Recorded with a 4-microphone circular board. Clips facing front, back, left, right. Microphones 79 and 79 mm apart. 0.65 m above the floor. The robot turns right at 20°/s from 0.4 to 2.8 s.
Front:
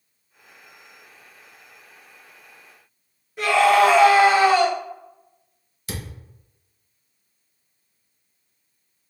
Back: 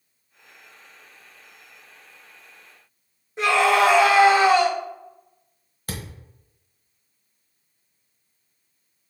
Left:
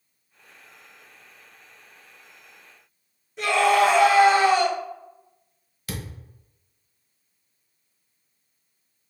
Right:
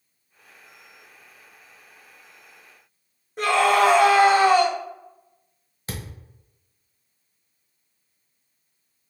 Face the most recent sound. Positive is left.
turn(degrees=-145)